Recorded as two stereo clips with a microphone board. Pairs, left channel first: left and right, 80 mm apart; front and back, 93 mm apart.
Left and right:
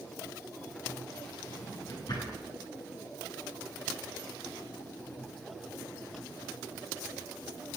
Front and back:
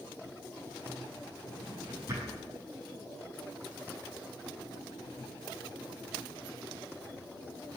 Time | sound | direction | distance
1.5 | a drawer | 125° left | 7.5 m